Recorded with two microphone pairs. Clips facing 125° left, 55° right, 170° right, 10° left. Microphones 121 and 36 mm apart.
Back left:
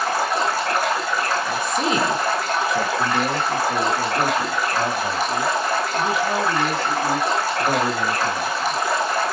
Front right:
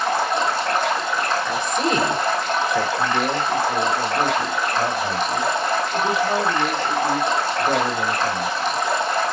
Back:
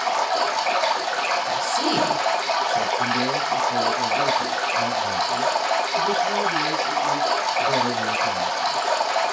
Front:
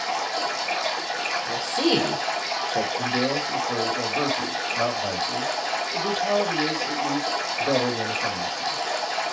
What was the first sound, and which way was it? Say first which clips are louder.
Running water: front right 1 dB, back 5 dB; 155° right.